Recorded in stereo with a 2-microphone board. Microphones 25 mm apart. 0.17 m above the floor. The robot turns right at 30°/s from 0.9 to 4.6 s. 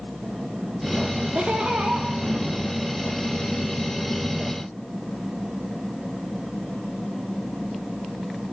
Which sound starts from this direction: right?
Laughter, at 1.4 s.